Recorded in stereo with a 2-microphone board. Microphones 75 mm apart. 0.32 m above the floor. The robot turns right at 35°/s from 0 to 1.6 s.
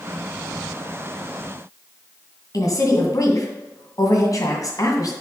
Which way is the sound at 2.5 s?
55° left (ahead or behind).